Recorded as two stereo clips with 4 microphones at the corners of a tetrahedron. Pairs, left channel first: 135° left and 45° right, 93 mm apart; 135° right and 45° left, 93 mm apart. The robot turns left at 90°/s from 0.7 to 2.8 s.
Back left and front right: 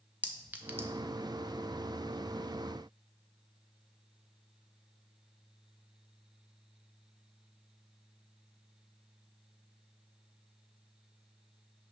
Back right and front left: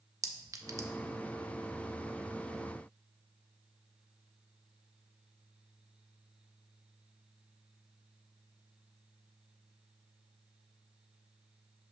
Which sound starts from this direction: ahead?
A clink, at 0.2 s.